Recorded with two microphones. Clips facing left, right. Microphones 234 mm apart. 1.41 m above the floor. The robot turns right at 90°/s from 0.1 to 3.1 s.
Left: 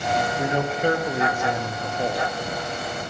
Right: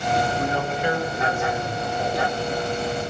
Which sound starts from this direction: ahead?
A man speaking, at 0.4 s.